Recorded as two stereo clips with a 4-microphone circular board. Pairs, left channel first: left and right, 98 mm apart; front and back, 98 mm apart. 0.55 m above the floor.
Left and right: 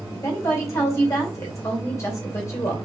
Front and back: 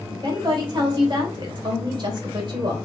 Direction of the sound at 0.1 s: 150° left.